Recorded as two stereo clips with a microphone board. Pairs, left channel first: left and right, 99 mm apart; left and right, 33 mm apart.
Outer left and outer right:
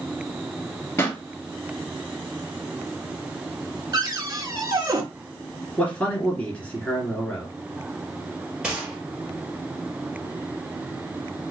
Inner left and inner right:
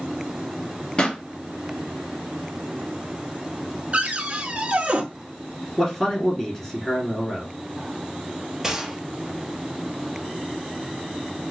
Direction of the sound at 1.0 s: 30° left (ahead or behind).